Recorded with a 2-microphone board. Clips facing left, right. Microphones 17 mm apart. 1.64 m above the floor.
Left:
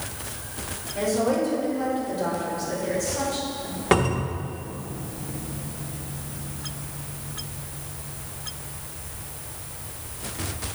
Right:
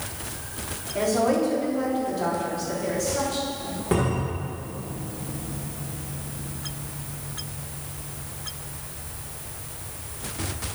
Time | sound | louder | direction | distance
0.9 | a woman speaking | right 1 dB | 75° right (ahead or behind) | 3.5 m
3.9 | a cupboard door | left 3 dB | 45° left (ahead or behind) | 1.3 m